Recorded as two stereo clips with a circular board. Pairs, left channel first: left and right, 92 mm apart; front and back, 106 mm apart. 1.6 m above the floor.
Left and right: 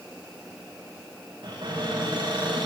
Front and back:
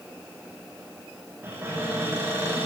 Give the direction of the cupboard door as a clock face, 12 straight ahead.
4 o'clock.